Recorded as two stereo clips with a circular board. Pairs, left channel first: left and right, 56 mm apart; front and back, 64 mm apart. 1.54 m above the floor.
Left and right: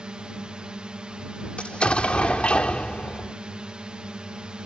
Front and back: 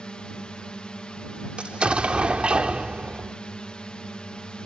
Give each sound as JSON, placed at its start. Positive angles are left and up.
{"t": 0.0, "sound": "a drone", "azimuth_deg": -50}
{"t": 1.6, "sound": "an explosion", "azimuth_deg": 130}